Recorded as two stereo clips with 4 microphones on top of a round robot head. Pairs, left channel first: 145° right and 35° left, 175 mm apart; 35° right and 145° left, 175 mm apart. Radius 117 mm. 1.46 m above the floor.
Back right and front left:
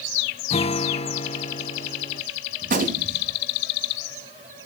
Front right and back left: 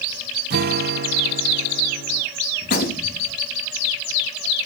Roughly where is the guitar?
Behind.